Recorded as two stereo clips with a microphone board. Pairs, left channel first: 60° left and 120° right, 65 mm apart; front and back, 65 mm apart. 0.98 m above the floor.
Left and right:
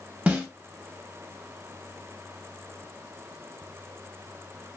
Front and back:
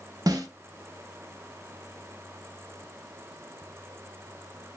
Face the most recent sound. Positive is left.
turn(degrees=175)